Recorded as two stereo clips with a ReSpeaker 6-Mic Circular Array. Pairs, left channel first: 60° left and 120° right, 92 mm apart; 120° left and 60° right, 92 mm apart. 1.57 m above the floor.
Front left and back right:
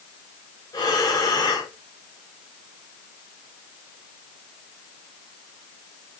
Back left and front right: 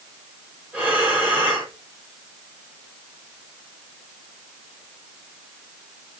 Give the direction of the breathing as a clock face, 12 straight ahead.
12 o'clock.